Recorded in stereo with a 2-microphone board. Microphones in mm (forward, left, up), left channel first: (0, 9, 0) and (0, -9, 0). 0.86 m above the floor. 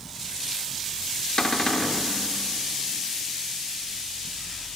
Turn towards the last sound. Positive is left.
turn(degrees=50)  # may be behind; listen again after turning